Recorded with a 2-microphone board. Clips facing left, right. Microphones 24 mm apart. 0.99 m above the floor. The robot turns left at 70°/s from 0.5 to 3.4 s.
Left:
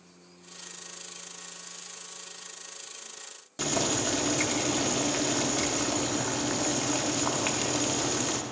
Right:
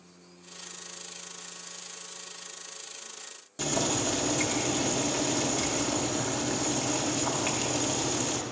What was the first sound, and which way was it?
Boiling, 20° left (ahead or behind).